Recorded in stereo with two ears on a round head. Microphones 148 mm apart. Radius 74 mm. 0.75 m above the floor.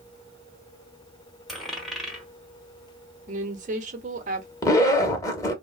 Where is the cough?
No cough in this recording.